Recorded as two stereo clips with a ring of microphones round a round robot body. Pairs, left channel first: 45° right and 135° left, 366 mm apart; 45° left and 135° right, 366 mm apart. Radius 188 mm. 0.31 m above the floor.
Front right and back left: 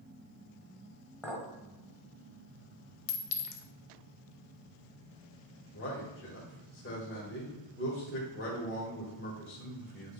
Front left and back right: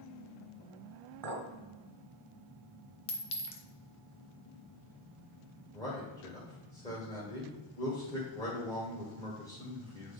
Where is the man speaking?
25° right, 1.6 m.